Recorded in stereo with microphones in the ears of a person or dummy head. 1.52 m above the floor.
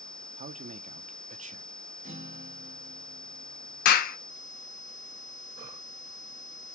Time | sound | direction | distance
0.4 | a man speaking | 45° right (ahead or behind) | 0.5 m
2.0 | a guitar | 40° right (ahead or behind) | 1.5 m
3.9 | a clap | 55° left (ahead or behind) | 0.5 m